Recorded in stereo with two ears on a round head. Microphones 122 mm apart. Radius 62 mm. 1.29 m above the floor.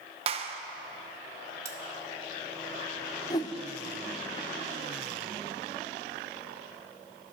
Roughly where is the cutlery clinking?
Right.